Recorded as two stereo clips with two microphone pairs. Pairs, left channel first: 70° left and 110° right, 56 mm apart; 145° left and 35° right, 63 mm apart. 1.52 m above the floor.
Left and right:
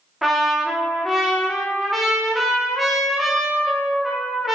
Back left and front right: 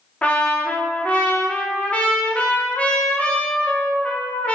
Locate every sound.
0.2 s a trumpet: 170° left, 0.6 m